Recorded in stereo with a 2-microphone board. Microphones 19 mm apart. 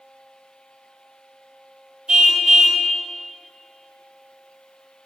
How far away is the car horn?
About 6 m.